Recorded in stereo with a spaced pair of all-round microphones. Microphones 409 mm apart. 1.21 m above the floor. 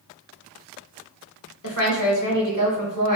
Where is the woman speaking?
45° left (ahead or behind), 1.6 m.